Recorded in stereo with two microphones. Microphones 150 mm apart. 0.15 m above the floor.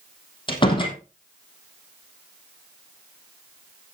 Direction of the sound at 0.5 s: 35° left (ahead or behind).